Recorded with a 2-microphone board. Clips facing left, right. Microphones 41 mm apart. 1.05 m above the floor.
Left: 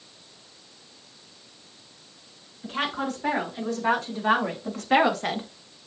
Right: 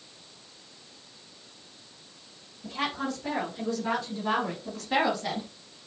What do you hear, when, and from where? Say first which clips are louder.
2.6 s a woman speaking: left 3 dB; 75° left (ahead or behind), 4 m; by 5.5 s 45° left (ahead or behind), 0.9 m